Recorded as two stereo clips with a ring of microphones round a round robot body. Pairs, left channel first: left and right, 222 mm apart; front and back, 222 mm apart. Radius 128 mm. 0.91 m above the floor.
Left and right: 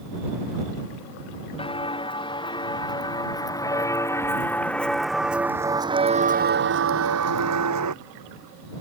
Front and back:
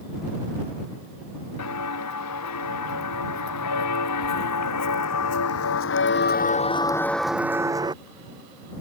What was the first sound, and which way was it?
Footsteps, 25° left.